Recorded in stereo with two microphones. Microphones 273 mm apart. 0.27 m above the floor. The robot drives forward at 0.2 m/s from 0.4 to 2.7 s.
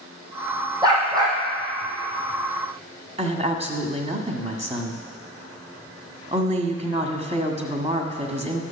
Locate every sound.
0.8 s a dog barking: 15° right (ahead or behind), 3 m
3.2 s a woman speaking: 25° right (ahead or behind), 1.5 m